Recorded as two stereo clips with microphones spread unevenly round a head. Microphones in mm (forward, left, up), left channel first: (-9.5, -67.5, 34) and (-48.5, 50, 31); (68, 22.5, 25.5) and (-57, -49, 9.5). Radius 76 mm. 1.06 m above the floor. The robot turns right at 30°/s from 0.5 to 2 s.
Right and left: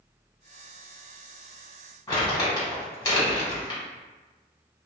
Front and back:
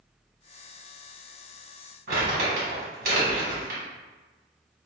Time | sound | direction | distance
2.1 | crumpling | 130° right | 1.7 m